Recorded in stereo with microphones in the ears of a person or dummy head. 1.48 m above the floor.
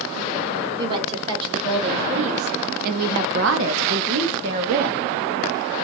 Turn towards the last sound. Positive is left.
turn(degrees=-40)  # may be behind; listen again after turning